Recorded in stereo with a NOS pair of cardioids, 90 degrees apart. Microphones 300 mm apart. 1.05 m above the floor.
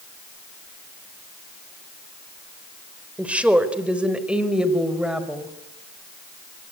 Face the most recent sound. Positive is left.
turn(degrees=-5)